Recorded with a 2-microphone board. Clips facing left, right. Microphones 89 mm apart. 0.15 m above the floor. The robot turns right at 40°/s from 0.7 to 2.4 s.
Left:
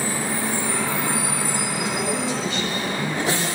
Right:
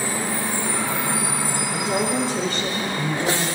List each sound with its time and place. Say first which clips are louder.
1.7 s a woman speaking: right 5 dB; 35° right (ahead or behind), 4.5 m; by 3.6 s 60° right (ahead or behind), 4.5 m